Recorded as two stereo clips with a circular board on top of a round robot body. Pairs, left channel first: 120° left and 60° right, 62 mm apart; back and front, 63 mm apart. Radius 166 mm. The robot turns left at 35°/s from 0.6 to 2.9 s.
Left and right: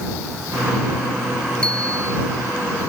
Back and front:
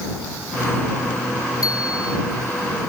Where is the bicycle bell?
165° right; by 2.2 s 175° left.